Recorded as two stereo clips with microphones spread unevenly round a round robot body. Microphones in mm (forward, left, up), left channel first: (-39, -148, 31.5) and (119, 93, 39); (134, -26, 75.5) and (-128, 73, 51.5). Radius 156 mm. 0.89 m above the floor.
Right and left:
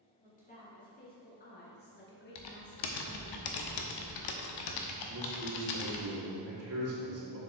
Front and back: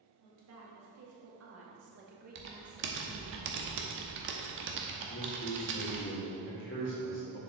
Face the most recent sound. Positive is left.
turn(degrees=25)